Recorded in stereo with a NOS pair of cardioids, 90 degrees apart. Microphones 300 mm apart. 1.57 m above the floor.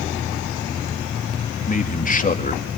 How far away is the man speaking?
About 2.5 m.